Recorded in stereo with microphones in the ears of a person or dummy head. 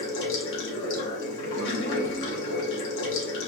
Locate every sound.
0.0 s running water: 70° left (ahead or behind), 1.6 m